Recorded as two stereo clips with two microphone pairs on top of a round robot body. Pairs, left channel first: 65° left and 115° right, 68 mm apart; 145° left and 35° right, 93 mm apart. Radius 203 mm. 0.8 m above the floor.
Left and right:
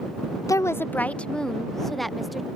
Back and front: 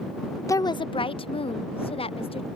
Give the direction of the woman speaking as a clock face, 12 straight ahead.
9 o'clock.